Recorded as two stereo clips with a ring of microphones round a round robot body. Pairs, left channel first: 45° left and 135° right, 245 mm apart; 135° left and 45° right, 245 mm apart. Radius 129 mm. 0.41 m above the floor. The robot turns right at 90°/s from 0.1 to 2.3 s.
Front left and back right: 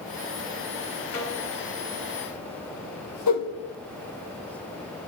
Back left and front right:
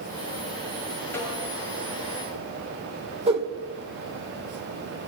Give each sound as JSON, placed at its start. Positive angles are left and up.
{"t": 1.1, "sound": "a snare drum", "azimuth_deg": 55, "distance_m": 6.0}
{"t": 3.3, "sound": "a whoosh", "azimuth_deg": 25, "distance_m": 3.0}